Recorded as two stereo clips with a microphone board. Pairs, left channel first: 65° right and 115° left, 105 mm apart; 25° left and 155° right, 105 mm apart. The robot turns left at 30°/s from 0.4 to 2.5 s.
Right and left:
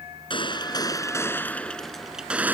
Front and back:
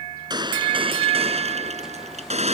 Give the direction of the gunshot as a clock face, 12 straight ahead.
4 o'clock.